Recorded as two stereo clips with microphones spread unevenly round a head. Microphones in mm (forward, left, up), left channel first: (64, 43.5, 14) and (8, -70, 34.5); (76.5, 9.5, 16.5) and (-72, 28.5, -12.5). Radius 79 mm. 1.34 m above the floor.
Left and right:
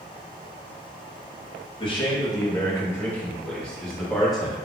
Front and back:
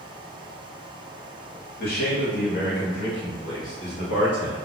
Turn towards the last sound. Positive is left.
turn(degrees=-30)